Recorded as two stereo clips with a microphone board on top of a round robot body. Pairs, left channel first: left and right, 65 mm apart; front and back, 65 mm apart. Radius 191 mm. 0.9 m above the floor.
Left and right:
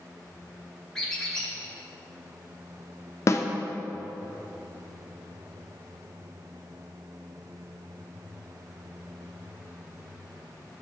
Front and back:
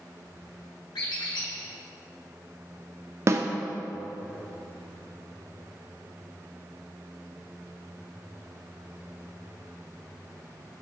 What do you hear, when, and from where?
0.9 s a squeak: 10° left, 2.5 m
3.3 s a snare drum: 135° left, 0.7 m